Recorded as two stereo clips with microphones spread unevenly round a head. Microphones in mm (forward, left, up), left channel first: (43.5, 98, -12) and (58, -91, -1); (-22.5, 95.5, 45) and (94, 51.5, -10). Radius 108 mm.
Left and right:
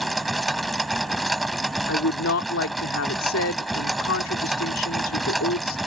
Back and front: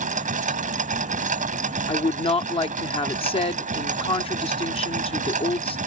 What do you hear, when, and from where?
0.0 s a machine running: 5° left
1.9 s a woman speaking: 110° left